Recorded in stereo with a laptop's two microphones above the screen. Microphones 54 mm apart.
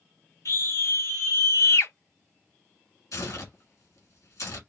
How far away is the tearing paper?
About 1.8 m.